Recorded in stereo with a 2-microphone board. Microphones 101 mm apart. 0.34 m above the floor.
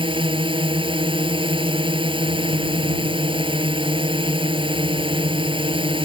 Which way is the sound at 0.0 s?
65° right (ahead or behind).